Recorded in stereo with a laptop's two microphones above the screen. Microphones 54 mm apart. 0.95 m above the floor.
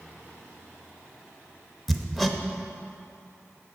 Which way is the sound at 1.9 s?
5° left (ahead or behind).